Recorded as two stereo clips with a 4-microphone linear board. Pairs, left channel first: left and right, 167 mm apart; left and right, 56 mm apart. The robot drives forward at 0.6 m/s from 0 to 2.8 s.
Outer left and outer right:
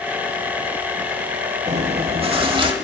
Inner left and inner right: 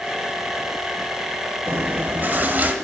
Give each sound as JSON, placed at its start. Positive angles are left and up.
{"t": 1.7, "sound": "chewing", "side_deg": -40, "distance_m": 0.8}